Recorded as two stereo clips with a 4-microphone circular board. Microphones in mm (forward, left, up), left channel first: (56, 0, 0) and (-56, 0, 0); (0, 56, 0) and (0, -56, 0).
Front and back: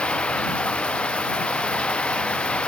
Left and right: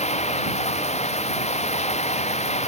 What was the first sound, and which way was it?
Running water, 80° left.